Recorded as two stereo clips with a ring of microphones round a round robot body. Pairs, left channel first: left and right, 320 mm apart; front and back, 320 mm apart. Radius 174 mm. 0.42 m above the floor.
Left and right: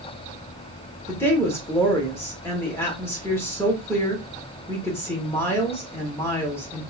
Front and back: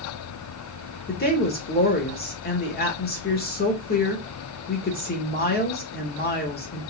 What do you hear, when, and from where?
1.1 s a woman speaking: 15° left, 1.2 m